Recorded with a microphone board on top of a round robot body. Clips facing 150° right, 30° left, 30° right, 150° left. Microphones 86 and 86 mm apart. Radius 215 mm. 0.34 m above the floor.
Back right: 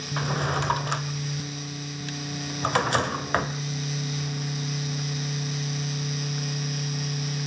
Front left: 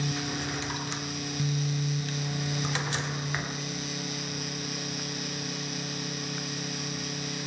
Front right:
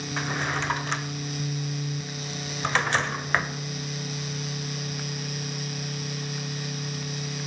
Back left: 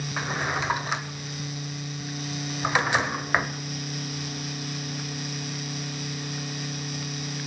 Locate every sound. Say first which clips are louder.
0.2 s a drawer: back right 6 dB, back left 1 dB; 130° right, 1.7 m